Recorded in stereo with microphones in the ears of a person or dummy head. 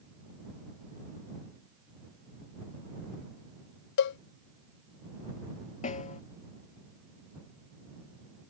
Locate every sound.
4.0 s a cowbell: 60° left (ahead or behind)
5.8 s a snare drum: 40° left (ahead or behind)